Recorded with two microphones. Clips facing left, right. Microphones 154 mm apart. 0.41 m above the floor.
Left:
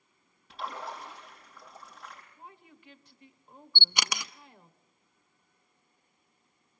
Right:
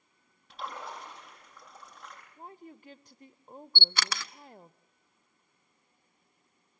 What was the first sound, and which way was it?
A splash, centre (ahead or behind).